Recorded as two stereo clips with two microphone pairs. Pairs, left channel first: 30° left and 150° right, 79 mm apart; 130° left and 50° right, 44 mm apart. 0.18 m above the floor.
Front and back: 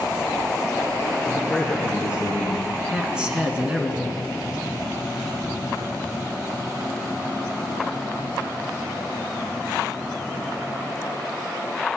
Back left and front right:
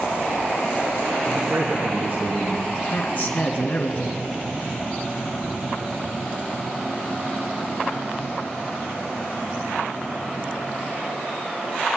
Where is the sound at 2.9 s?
140° left, 2 m.